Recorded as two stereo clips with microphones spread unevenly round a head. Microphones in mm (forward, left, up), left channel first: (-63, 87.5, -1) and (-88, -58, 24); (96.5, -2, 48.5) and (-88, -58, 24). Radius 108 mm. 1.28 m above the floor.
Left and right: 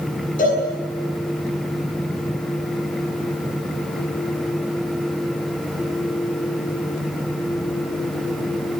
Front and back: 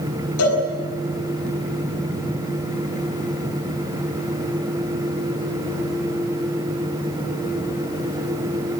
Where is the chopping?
No chopping in this recording.